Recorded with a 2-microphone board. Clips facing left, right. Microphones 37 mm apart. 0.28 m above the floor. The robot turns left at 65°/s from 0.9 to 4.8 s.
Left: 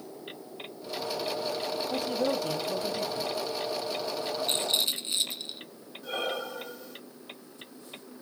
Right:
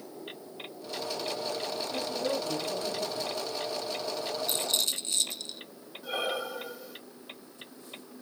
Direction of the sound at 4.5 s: 45° left (ahead or behind).